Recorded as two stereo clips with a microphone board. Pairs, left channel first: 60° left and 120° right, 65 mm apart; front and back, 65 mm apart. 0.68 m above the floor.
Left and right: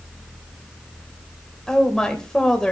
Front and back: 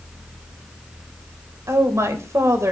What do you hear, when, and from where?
1.7 s a woman speaking: 140° left, 3 m